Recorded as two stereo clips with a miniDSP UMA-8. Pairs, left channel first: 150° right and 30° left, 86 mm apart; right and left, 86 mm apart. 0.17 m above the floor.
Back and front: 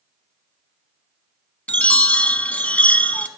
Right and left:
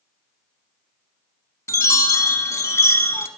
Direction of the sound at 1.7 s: 90° right.